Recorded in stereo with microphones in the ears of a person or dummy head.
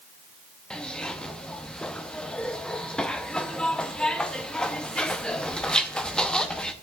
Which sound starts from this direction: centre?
A zipper, at 0.7 s.